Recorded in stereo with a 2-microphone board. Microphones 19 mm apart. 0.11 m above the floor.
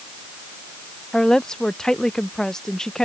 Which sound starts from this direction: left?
A woman speaking, at 1.1 s.